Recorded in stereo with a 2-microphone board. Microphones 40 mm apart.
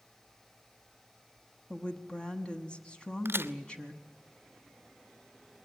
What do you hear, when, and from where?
1.7 s a woman speaking: 25° left (ahead or behind), 1.2 m
3.2 s a crack: 70° right (ahead or behind), 0.5 m